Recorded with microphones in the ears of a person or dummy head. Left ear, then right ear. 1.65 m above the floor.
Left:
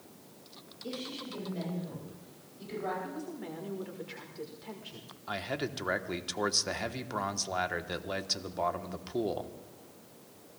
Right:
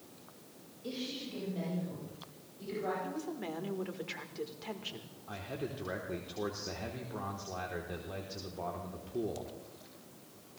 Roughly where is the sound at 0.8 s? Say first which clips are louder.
Left 1 dB; centre.